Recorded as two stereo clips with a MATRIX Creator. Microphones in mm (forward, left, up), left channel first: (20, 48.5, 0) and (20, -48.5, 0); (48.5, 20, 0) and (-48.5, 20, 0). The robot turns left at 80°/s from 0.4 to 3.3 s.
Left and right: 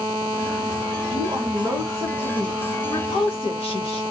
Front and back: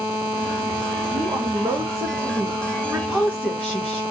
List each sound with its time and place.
1.1 s a woman speaking: 100° right, 1.5 m; by 4.0 s 85° left, 1.5 m